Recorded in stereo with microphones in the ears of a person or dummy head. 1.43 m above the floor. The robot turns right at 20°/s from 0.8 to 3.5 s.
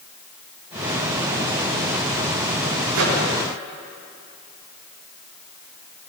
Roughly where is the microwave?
Right.